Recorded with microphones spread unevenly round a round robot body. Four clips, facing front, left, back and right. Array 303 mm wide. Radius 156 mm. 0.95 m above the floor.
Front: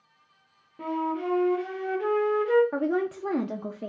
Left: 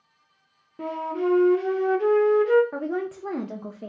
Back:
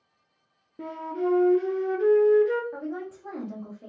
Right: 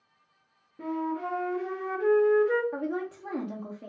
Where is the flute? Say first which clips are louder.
Left 4 dB, front 1 dB; 140° left, 0.6 m.